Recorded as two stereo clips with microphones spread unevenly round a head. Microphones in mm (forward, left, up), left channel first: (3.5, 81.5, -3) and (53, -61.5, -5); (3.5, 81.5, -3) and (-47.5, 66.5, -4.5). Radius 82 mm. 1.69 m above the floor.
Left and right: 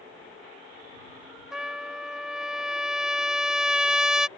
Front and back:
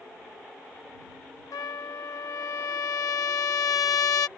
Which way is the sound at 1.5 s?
15° left.